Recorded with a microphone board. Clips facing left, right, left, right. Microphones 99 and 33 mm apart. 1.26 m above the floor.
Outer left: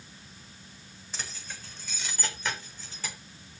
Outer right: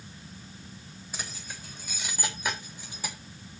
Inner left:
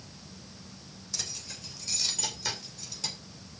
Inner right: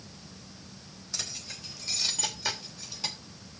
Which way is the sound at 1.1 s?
10° right (ahead or behind).